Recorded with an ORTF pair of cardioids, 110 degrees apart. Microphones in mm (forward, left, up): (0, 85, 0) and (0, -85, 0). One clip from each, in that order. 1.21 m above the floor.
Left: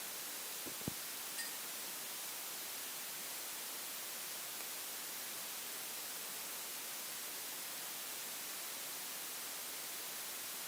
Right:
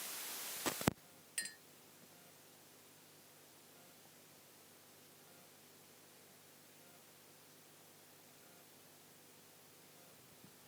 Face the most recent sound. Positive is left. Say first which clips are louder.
# right 2 dB
turn(degrees=-70)